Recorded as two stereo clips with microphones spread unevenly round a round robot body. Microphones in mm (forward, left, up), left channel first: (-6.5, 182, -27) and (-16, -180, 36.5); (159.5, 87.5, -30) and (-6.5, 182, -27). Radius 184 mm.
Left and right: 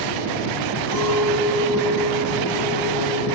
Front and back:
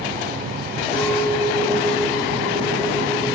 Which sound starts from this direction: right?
A clink, at 0.9 s.